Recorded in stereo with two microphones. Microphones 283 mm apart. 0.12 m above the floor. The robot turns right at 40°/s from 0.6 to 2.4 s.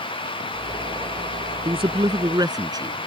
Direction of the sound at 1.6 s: 20° right (ahead or behind).